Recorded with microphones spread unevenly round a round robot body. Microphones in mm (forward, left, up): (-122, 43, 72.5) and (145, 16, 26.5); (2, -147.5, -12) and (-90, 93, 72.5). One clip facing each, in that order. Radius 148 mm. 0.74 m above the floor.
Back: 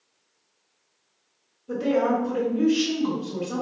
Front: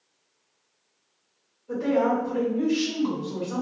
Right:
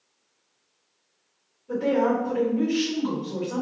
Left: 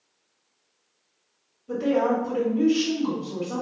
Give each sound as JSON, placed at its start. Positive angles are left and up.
{"t": 1.7, "sound": "a woman speaking", "azimuth_deg": 130, "distance_m": 1.6}